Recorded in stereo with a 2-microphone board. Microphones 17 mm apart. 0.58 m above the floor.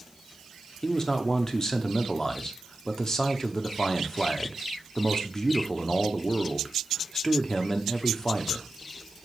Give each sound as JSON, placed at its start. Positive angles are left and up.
{"t": 0.8, "sound": "a man speaking", "side_deg": 35, "distance_m": 0.9}